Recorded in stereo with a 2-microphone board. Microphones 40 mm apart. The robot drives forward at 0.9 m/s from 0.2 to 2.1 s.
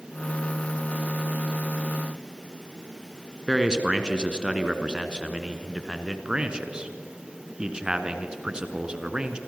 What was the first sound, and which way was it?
A man speaking, 25° right (ahead or behind).